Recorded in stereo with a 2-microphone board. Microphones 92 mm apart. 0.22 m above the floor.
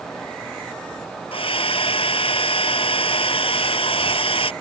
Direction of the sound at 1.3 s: 80° left.